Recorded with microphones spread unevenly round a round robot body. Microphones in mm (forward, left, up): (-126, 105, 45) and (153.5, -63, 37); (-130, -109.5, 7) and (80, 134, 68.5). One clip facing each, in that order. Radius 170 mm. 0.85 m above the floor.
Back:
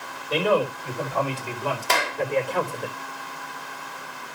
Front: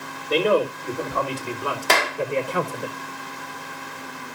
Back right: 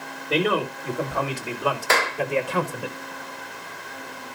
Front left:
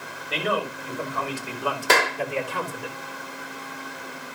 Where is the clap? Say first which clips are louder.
Front 4 dB, front left 2 dB; 5° right, 2.0 m.